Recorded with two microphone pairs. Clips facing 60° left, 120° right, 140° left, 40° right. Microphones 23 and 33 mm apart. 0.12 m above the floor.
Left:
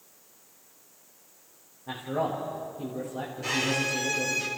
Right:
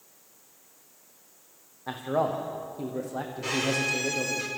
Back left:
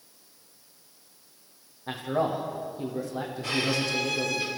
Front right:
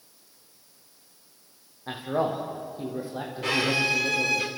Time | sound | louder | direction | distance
1.9 | a man speaking | right 3 dB, even | 105° right | 5.5 m
3.4 | a violin | even, front right 4 dB | 45° right | 4 m